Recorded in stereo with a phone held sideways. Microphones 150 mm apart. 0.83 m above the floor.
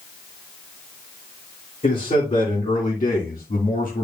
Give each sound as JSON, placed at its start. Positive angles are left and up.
{"t": 1.8, "sound": "a man speaking", "side_deg": 55, "distance_m": 2.5}